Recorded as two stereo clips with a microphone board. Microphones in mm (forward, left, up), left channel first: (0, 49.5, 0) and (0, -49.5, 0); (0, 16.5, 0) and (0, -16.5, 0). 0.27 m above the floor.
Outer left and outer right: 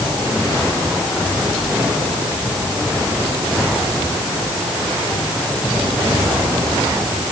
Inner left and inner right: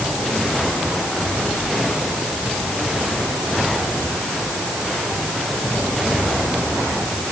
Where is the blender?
No blender in this recording.